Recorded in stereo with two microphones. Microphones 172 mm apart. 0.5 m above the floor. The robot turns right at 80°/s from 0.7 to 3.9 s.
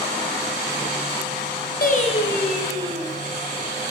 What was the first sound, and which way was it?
Singing, 125° left.